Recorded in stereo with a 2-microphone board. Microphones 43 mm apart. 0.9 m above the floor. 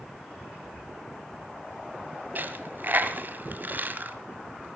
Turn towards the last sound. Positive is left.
turn(degrees=-50)  # may be behind; listen again after turning